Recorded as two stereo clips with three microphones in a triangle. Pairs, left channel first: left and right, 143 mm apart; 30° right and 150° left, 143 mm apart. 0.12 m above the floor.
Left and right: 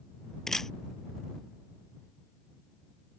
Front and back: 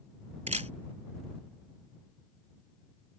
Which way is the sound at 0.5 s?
175° left.